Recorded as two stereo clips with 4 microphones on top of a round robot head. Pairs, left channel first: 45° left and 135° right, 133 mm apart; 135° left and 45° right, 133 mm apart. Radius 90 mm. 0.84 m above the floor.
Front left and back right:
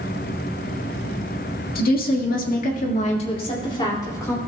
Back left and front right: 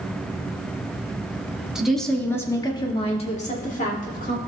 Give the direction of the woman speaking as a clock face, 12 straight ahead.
11 o'clock.